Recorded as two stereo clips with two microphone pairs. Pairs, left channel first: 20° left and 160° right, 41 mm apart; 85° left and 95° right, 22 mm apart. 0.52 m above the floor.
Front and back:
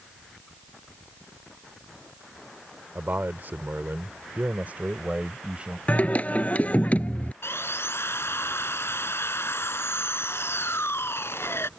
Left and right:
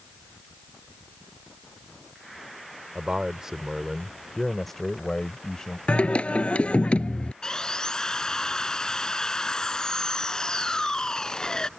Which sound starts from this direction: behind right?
A man speaking, at 3.0 s.